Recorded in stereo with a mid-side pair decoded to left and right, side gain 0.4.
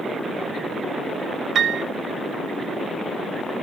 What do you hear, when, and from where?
1.6 s a piano: 60° right, 1.2 m